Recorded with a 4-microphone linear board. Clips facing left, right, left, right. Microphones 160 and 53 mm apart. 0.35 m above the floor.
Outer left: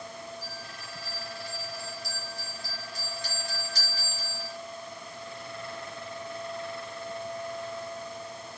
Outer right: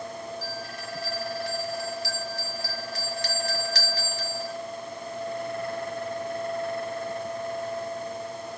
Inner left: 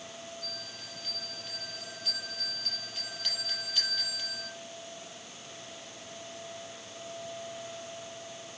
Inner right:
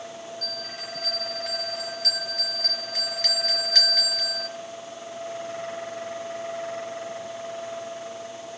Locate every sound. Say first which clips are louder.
0.4 s a bell: outer right 7 dB, inner right 8 dB; 75° right (ahead or behind), 4 m